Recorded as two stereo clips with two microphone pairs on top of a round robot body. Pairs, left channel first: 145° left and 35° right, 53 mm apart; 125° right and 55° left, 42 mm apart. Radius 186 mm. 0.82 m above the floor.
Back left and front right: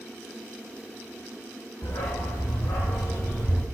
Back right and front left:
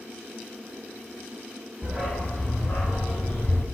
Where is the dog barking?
120° left, 0.6 m; by 3.6 s 165° right, 1.5 m.